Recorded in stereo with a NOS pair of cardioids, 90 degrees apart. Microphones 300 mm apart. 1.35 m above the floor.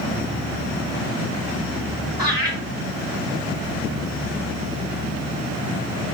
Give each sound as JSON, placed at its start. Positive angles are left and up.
{"t": 2.2, "sound": "laughter", "azimuth_deg": 0, "distance_m": 1.1}